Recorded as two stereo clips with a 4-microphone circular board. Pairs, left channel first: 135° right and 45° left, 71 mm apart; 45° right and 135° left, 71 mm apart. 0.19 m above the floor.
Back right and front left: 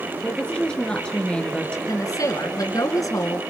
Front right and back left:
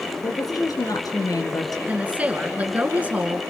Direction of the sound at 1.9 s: 160° right.